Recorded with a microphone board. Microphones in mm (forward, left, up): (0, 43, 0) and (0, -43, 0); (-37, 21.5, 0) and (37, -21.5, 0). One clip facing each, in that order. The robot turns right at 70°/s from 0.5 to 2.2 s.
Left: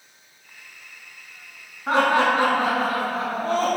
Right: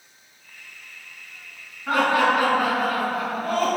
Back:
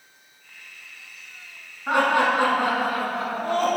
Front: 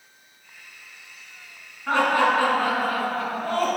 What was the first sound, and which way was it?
Laughter, 80° left.